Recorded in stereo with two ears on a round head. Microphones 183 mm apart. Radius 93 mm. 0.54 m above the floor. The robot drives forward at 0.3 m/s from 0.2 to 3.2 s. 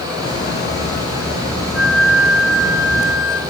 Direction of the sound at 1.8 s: Centre (ahead or behind).